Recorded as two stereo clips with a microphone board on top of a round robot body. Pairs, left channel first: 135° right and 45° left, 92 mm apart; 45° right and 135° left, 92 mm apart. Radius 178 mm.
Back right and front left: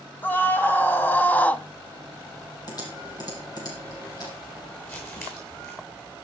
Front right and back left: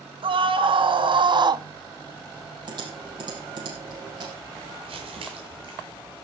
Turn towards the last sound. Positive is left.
turn(degrees=160)